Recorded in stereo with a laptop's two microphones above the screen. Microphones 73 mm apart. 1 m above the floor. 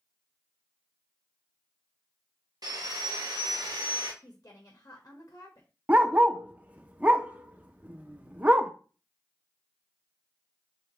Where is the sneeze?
No sneeze in this recording.